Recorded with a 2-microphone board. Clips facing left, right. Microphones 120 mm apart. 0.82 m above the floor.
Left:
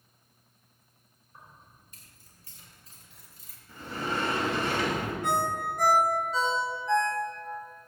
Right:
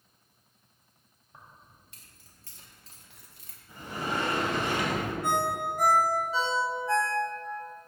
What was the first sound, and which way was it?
Keys jangling, 70° right (ahead or behind).